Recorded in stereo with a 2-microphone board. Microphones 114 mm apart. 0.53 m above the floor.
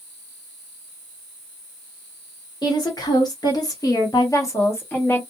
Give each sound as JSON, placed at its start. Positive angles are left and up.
{"t": 2.6, "sound": "a woman speaking", "side_deg": 35, "distance_m": 1.5}